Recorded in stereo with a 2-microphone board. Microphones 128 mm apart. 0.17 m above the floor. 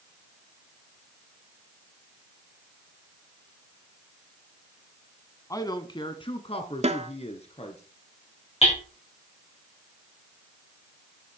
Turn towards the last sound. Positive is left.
turn(degrees=50)  # may be behind; listen again after turning